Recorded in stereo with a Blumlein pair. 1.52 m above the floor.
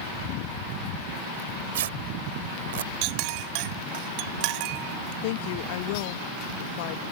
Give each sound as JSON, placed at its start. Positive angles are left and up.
{"t": 1.4, "sound": "tearing paper", "azimuth_deg": -55}
{"t": 3.0, "sound": "a clink", "azimuth_deg": -45}
{"t": 5.2, "sound": "a woman speaking", "azimuth_deg": 50}